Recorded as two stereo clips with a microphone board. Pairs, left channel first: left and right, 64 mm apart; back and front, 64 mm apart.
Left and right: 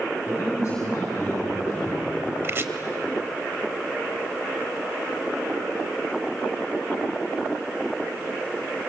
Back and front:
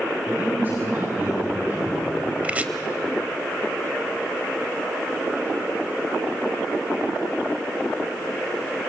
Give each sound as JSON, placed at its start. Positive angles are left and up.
{"t": 0.3, "sound": "a man speaking", "azimuth_deg": 40, "distance_m": 8.0}
{"t": 2.4, "sound": "chopping", "azimuth_deg": -60, "distance_m": 0.9}